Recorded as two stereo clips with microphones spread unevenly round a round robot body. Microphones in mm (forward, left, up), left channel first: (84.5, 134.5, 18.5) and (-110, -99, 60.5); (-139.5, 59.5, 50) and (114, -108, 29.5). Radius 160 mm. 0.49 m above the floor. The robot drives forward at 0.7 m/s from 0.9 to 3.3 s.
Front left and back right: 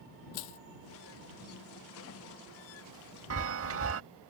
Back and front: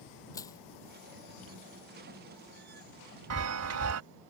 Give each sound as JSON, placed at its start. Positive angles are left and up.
{"t": 0.3, "sound": "crushing", "azimuth_deg": 65}
{"t": 3.3, "sound": "a chime", "azimuth_deg": -80}